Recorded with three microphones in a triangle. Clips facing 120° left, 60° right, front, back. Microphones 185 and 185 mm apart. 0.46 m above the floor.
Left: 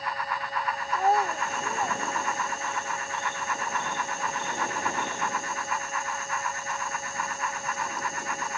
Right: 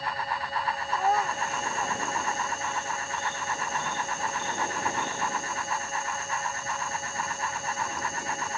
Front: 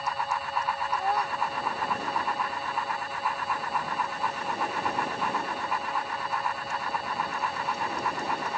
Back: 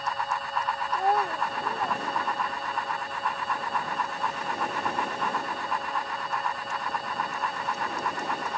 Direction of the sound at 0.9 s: 170° right.